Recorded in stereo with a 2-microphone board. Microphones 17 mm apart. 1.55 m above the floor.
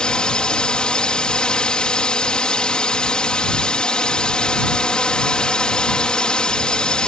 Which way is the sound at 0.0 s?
80° left.